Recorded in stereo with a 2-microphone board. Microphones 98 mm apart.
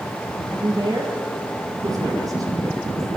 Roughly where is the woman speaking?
Right.